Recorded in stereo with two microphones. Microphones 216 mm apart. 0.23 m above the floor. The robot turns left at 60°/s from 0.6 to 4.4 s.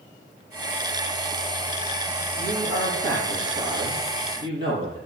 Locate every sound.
2.4 s a man speaking: 35° right, 6.5 m; by 5.0 s 155° right, 6.5 m